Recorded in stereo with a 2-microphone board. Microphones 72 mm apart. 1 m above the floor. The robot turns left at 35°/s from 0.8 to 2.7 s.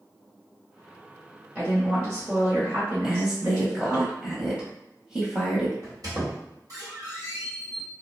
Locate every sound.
1.6 s a woman speaking: 20° right, 0.9 m; by 4.0 s 60° right, 0.9 m
3.0 s a woman speaking: 10° right (ahead or behind), 0.8 m
5.8 s a squeak: 50° right (ahead or behind), 1.3 m